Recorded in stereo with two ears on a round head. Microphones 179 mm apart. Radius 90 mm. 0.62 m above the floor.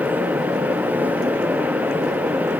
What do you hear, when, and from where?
Only background noise.